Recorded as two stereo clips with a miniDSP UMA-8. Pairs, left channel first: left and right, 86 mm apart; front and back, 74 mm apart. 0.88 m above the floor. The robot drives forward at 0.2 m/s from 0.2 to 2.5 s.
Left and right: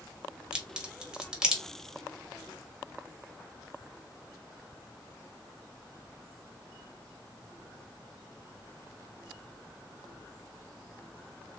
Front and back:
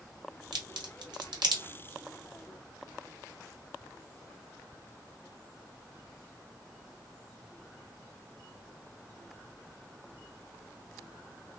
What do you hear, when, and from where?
0.5 s a crack: 170° right, 1.0 m